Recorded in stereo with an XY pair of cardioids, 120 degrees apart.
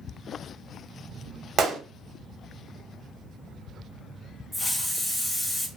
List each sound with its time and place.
1.6 s a gunshot: 50° right, 0.8 m
4.5 s a hiss: 15° left, 0.7 m